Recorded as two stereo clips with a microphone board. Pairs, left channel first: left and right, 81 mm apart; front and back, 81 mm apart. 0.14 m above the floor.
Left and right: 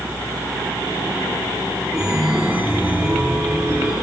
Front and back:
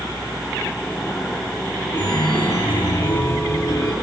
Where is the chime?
30° right, 2.5 m.